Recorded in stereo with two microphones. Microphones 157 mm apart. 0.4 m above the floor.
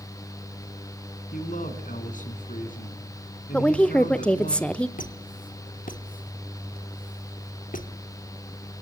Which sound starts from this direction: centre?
A woman speaking, at 3.5 s.